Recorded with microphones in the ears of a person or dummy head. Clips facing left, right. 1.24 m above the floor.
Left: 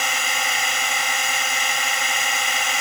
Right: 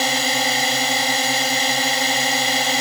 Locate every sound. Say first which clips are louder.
0.0 s a drone: right 6 dB; 25° right (ahead or behind)